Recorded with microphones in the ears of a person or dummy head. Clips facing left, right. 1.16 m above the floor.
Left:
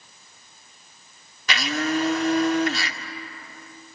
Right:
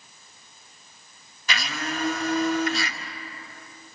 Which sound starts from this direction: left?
A blender, at 1.5 s.